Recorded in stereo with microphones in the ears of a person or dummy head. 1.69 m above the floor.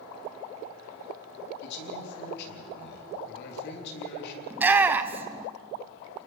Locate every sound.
1.6 s a man speaking: 60° left (ahead or behind), 3.5 m
4.5 s a shout: 10° right (ahead or behind), 1.1 m